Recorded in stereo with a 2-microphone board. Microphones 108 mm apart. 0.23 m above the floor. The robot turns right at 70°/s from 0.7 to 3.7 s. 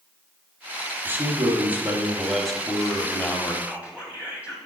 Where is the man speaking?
20° right (ahead or behind), 1.1 m; by 3.5 s 20° left (ahead or behind), 1.1 m.